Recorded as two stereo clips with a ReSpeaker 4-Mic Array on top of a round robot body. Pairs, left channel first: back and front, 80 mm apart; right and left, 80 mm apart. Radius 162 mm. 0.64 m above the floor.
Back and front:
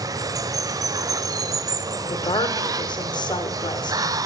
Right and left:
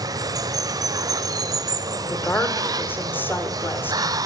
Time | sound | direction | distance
0.0 | running water | 45° left | 1.0 m
2.1 | a woman speaking | 155° right | 2.5 m